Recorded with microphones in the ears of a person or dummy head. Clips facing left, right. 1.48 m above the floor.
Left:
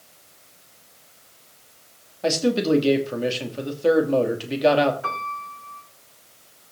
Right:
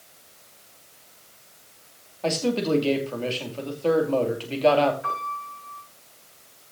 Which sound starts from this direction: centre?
A man speaking, at 2.2 s.